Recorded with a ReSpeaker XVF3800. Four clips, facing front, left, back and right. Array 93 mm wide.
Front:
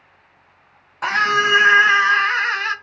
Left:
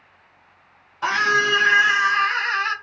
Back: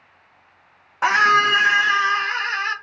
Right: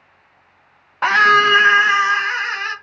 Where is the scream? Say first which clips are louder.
Right 7 dB, back 2 dB; 115° right, 0.7 m; by 2.7 s 5° right, 1.2 m.